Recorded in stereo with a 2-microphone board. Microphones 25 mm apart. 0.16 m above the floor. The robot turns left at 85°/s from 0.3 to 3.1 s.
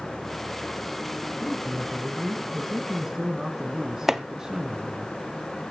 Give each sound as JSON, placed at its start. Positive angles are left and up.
{"t": 1.4, "sound": "a man speaking", "azimuth_deg": 10, "distance_m": 1.5}
{"t": 4.1, "sound": "chopping", "side_deg": -10, "distance_m": 0.7}